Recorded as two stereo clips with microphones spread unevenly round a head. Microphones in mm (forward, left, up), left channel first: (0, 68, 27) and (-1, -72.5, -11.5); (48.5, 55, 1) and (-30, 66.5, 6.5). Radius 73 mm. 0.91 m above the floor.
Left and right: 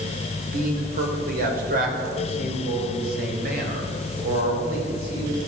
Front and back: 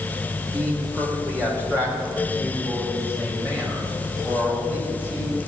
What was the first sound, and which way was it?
A man speaking, 115° right.